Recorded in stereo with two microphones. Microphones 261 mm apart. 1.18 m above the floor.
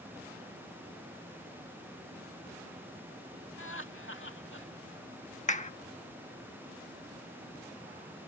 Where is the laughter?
50° left (ahead or behind).